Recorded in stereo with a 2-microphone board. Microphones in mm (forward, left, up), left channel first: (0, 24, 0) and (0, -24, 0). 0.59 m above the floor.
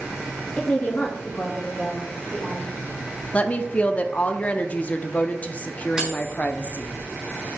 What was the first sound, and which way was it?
A woman speaking, 30° left (ahead or behind).